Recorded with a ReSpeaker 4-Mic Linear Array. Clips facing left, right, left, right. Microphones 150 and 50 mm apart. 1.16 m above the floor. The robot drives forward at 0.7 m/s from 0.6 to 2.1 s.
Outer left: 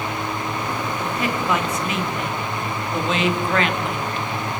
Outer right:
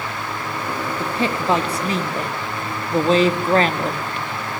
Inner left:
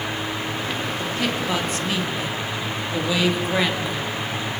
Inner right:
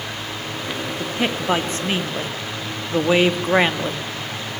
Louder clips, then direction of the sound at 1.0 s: Outer right 3 dB, inner right 3 dB; 30° right (ahead or behind).